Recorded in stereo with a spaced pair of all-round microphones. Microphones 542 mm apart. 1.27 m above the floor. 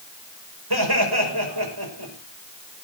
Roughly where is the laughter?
Right.